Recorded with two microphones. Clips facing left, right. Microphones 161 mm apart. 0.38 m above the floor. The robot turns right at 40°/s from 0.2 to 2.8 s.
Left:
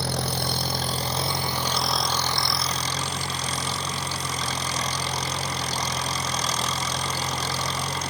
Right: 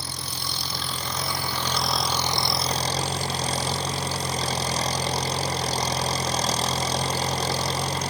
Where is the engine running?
110° left; by 8.1 s 145° right.